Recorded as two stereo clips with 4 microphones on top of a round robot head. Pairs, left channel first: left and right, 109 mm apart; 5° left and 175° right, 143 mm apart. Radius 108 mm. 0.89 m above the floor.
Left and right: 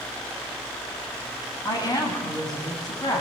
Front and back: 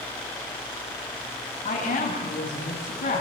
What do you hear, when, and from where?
1.6 s a woman speaking: 35° left, 8 m